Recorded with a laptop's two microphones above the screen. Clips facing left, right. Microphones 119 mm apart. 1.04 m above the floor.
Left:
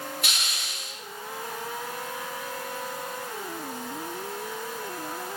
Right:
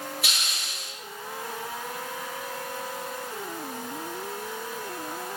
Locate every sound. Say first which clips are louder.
0.2 s a hiss: even; centre (ahead or behind), 5.5 m